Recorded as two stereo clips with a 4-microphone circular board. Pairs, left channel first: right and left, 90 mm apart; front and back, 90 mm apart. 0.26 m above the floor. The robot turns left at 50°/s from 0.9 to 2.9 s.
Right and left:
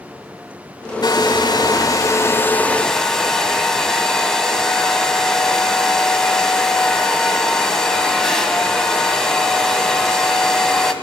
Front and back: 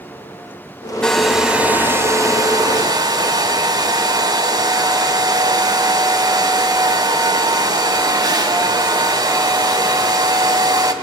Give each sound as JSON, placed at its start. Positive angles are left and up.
{"t": 1.0, "sound": "a hair dryer", "azimuth_deg": -80, "distance_m": 1.8}